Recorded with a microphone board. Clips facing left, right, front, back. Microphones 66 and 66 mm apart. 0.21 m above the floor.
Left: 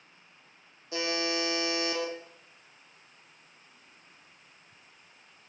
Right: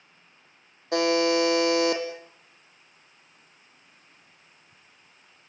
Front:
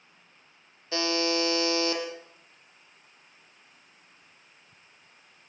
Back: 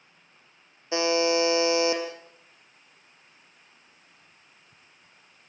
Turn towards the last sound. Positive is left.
turn(degrees=-110)